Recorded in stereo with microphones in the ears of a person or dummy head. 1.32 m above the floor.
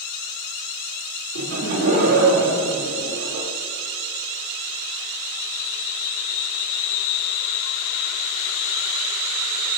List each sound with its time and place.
1.4 s laughter: 80° right, 2.5 m